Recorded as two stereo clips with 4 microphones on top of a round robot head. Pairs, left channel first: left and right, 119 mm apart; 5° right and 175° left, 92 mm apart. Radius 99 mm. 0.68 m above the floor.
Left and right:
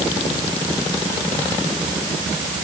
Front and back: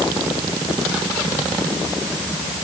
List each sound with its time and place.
Only background noise.